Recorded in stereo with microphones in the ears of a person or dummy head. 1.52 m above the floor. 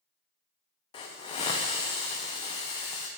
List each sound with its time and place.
0.9 s a hiss: 20° left (ahead or behind), 0.6 m